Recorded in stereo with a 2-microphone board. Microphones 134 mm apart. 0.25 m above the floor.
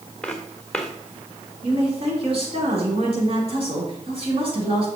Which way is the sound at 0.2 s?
10° left (ahead or behind).